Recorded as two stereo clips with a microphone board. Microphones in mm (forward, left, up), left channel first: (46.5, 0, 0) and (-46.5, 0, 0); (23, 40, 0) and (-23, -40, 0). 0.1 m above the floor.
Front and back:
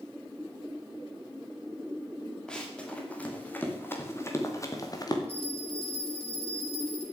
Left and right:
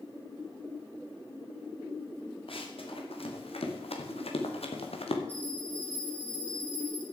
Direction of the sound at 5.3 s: 15° right.